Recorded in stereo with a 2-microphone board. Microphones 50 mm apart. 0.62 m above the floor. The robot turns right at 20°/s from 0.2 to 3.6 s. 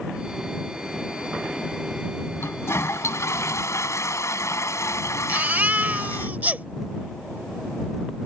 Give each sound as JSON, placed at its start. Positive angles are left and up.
{"t": 2.4, "sound": "a toilet flushing", "side_deg": 55}
{"t": 5.3, "sound": "a baby crying", "side_deg": -35}